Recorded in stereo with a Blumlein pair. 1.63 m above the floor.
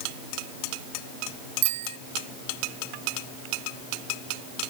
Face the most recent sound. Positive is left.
turn(degrees=-55)